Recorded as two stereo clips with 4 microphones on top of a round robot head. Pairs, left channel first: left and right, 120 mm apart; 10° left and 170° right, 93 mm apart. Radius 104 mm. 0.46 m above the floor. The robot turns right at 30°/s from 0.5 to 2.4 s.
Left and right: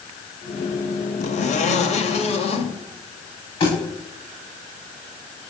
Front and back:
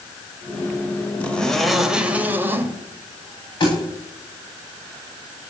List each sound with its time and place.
1.2 s a zipper: 85° left, 1.8 m; by 2.7 s 125° left, 1.8 m
3.6 s a thud: 50° left, 9.5 m